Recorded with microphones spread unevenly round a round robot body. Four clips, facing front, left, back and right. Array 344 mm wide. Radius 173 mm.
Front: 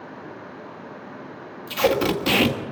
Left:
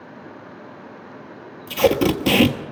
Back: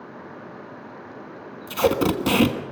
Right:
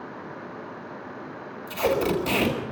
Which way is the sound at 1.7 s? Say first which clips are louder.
Left 6 dB, even; 115° left.